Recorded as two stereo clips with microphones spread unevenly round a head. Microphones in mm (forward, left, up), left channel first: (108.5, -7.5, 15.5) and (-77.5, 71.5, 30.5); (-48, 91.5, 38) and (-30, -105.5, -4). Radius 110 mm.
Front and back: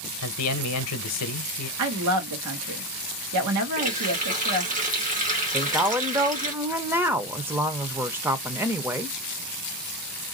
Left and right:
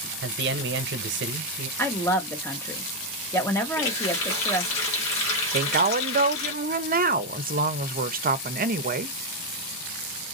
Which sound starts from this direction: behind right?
A woman speaking, at 5.5 s.